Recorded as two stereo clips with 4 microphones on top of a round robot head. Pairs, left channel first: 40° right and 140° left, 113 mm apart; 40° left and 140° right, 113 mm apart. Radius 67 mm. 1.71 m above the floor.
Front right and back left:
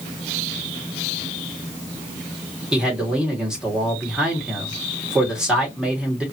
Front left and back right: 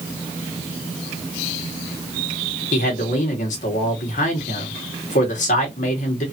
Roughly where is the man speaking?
Ahead left.